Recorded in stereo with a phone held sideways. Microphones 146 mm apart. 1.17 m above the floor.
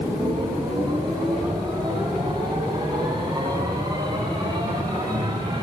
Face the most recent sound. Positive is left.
turn(degrees=-25)  # may be behind; listen again after turning